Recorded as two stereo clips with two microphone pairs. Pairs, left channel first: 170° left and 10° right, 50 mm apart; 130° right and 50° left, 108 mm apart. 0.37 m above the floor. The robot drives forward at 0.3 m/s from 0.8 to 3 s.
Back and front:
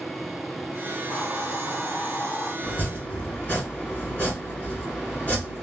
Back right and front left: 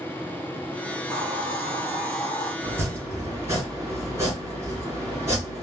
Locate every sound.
0.9 s a hiss: 125° left, 2.5 m; by 2.5 s 135° left, 2.5 m
2.6 s chopping: 115° left, 1.8 m; by 5.6 s 120° left, 1.8 m